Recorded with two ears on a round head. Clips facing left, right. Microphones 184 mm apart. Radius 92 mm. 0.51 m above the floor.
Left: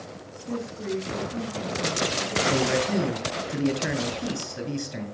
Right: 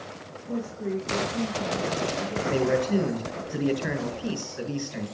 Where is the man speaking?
45° left (ahead or behind), 7 m.